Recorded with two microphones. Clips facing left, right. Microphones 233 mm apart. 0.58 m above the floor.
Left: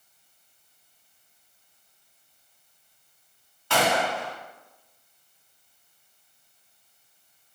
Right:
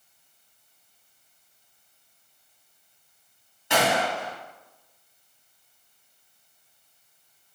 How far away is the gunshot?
About 0.8 m.